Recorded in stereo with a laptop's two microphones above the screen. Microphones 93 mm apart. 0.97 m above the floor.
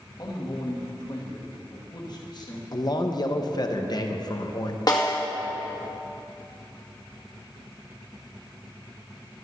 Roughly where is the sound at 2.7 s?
Left.